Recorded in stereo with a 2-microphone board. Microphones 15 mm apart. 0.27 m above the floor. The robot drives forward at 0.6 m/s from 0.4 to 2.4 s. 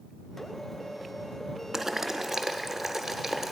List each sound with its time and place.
1.7 s boiling: 25° right (ahead or behind), 0.5 m; by 3.5 s 15° right (ahead or behind), 0.9 m